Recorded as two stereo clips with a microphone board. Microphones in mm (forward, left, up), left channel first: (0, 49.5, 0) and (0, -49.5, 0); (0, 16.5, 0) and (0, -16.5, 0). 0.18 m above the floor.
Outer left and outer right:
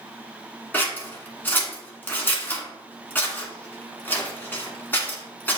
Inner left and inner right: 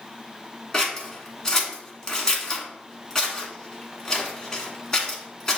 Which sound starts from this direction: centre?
Scissors, at 0.7 s.